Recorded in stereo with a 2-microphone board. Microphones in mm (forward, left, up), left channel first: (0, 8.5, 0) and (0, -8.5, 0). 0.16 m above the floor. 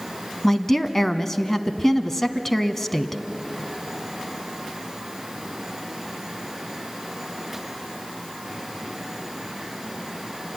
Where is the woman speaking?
15° left (ahead or behind), 1.0 m.